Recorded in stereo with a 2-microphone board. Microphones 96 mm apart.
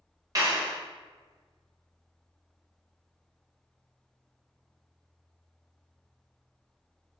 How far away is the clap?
About 1.5 m.